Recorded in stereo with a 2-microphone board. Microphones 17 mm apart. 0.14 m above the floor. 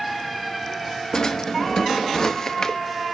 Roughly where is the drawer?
Left.